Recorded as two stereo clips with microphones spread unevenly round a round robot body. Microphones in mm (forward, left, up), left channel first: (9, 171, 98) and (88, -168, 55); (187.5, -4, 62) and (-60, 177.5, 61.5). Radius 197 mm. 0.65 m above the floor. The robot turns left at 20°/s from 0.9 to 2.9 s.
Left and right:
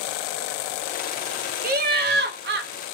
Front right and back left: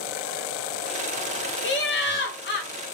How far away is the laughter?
About 0.6 m.